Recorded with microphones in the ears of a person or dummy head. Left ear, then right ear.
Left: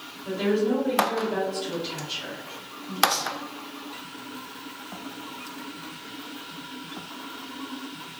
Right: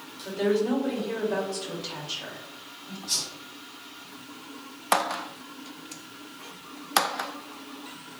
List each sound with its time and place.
0.2 s a woman speaking: 65° right (ahead or behind), 1.2 m
3.1 s a whoosh: 5° right (ahead or behind), 1.3 m